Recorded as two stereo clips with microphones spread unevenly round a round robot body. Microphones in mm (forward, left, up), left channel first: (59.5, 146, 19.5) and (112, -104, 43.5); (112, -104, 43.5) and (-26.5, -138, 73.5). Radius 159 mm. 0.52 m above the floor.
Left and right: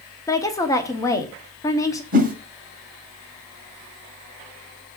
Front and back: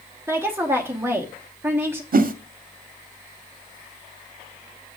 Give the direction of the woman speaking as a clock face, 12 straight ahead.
8 o'clock.